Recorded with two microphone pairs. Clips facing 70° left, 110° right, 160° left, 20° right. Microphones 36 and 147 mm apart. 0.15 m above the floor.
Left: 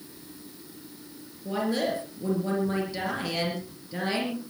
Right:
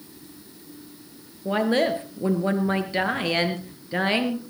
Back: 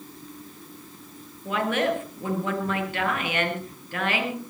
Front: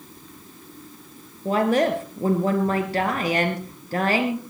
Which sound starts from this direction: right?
A woman speaking, at 1.4 s.